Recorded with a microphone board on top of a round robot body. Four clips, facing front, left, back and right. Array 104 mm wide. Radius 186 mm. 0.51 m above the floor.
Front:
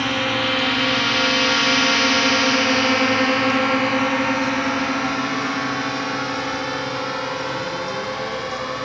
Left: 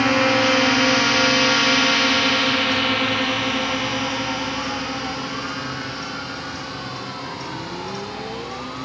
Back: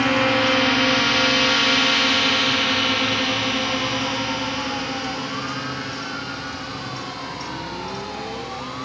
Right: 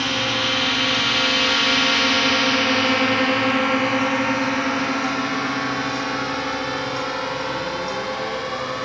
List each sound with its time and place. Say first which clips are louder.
0.0 s a drone: left 7 dB, back 3 dB; 115° left; by 8.9 s 45° right